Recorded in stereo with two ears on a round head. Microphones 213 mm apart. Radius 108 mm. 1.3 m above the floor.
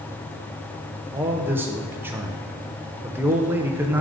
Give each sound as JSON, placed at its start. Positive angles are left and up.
{"t": 1.1, "sound": "a man speaking", "side_deg": -10, "distance_m": 0.7}